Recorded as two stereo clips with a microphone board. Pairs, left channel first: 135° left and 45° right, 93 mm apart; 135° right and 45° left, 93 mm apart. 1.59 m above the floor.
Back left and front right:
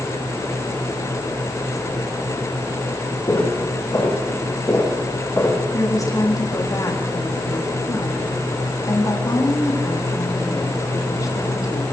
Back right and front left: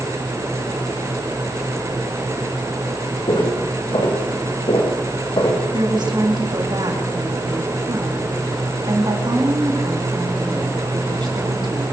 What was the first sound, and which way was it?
Footsteps, 170° right.